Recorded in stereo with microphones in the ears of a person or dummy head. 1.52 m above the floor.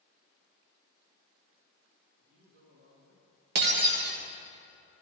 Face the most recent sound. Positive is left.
turn(degrees=-60)  # may be behind; listen again after turning